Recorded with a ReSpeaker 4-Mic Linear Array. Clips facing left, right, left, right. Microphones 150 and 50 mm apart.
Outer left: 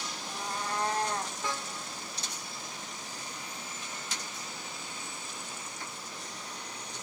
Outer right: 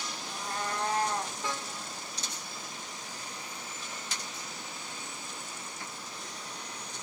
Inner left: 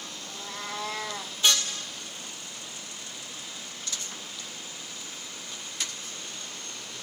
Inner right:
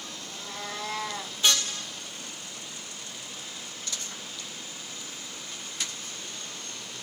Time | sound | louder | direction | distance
0.2 | a cat meowing | even, inner left 1 dB | 15° left (ahead or behind) | 1.2 m